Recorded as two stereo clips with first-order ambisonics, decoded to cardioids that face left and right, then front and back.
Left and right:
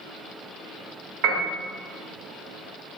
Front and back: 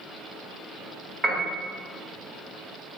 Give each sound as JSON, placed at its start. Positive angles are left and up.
{"t": 1.2, "sound": "a piano", "azimuth_deg": -115, "distance_m": 1.2}